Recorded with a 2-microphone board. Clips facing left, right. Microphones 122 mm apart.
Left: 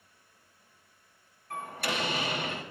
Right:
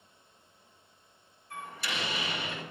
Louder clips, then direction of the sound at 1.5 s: Left 5 dB; 55° left (ahead or behind).